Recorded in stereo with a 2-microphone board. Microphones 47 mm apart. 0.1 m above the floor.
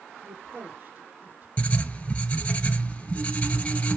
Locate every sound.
0.2 s a woman speaking: 30° right (ahead or behind), 2.5 m
1.6 s writing: 25° left (ahead or behind), 1.0 m